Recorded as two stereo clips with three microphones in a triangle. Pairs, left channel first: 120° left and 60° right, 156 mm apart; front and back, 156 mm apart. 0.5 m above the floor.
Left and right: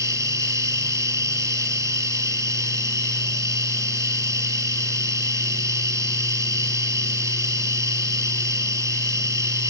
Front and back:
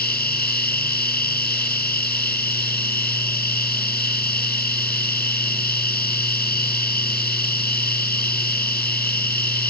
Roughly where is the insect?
Ahead.